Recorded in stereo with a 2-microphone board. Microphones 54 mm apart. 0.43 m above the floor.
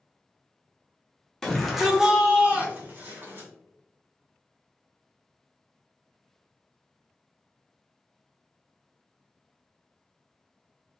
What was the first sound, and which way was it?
A shout, 10° left (ahead or behind).